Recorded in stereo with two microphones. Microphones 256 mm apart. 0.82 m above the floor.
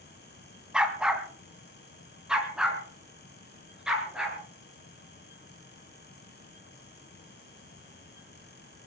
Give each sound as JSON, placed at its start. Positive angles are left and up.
{"t": 0.7, "sound": "a dog barking", "side_deg": -5, "distance_m": 2.0}